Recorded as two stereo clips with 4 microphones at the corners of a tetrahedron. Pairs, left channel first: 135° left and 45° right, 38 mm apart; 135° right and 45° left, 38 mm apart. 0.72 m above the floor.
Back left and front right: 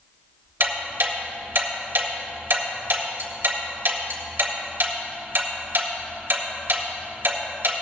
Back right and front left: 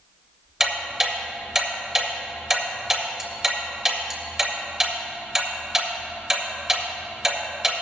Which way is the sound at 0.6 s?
30° right.